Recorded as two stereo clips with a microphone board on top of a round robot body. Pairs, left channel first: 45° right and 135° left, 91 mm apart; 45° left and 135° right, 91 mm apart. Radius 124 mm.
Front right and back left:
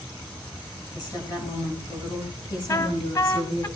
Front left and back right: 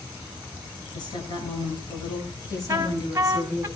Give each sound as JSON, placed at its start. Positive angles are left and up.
{"t": 0.9, "sound": "a woman speaking", "azimuth_deg": 0, "distance_m": 8.0}
{"t": 2.7, "sound": "a trumpet", "azimuth_deg": -80, "distance_m": 1.8}